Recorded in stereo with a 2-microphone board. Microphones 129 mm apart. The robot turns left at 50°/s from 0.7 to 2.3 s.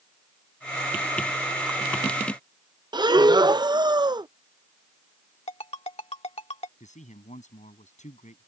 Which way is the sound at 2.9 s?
35° right (ahead or behind).